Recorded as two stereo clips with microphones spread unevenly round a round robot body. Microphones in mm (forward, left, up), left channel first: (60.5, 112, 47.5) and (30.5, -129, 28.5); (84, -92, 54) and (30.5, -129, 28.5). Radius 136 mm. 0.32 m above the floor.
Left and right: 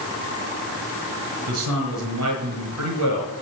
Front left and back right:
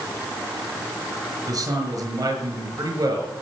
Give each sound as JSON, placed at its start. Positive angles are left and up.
{"t": 1.5, "sound": "a man speaking", "azimuth_deg": -125, "distance_m": 5.5}